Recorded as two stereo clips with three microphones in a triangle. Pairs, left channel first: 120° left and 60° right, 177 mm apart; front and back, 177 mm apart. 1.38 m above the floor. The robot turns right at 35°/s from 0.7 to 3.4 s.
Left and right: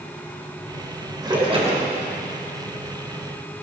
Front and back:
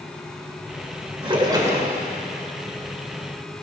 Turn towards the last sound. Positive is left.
turn(degrees=-50)